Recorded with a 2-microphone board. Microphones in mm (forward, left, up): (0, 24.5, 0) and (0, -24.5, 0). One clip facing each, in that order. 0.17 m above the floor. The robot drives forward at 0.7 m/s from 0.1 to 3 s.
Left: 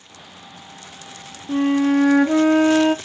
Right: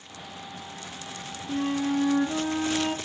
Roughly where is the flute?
Left.